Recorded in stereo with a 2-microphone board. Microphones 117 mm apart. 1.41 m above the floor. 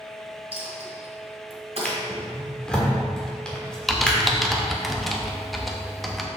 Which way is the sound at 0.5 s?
60° right (ahead or behind).